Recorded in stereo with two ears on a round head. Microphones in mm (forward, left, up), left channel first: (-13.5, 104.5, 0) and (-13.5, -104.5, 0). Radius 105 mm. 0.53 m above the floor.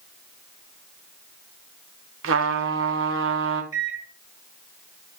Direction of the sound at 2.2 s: 55° right (ahead or behind).